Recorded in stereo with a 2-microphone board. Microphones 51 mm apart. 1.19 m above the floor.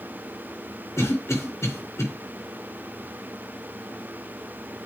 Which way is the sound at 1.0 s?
70° left (ahead or behind).